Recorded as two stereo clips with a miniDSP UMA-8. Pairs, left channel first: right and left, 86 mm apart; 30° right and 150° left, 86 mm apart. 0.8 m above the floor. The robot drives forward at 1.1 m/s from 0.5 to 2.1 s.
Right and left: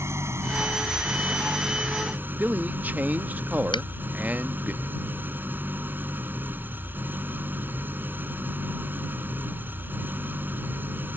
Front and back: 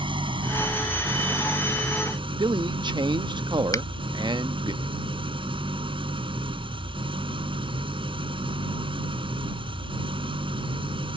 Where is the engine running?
145° left; by 11.2 s 155° left.